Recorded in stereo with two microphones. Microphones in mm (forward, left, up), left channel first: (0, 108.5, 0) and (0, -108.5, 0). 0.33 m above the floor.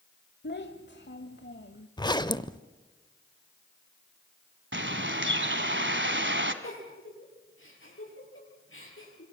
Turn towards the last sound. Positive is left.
turn(degrees=65)  # may be behind; listen again after turning